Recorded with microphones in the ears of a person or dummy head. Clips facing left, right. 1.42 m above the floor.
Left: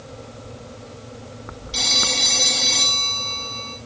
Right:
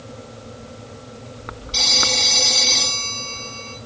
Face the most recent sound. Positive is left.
turn(degrees=10)  # may be behind; listen again after turning